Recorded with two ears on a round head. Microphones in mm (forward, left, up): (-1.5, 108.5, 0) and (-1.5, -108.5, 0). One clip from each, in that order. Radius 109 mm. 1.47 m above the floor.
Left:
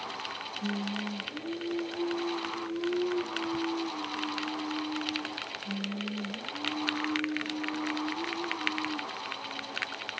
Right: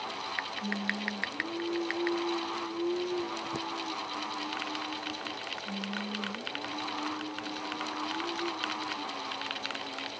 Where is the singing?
15° left (ahead or behind), 8 m.